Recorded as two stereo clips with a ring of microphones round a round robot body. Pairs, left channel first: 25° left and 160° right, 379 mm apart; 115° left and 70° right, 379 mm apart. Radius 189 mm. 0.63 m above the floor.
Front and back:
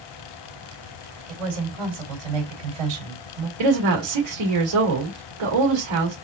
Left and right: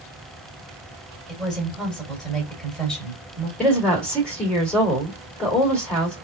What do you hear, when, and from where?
1.3 s a woman speaking: 160° right, 2.5 m
3.6 s a woman speaking: 160° right, 2.5 m